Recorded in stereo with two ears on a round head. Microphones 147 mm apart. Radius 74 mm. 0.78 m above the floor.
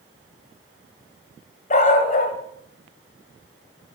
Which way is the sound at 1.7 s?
45° left (ahead or behind).